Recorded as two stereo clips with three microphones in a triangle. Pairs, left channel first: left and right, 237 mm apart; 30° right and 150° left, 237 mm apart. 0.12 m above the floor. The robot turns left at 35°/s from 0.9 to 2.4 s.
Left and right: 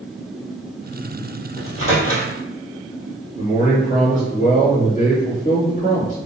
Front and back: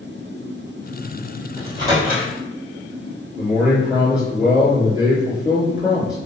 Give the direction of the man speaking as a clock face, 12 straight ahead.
10 o'clock.